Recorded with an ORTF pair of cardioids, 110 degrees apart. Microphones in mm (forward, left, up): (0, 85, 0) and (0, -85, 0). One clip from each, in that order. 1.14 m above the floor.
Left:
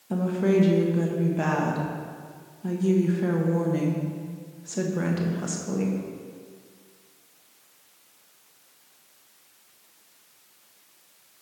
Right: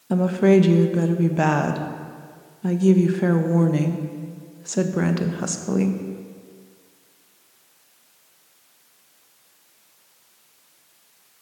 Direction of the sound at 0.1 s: 35° right.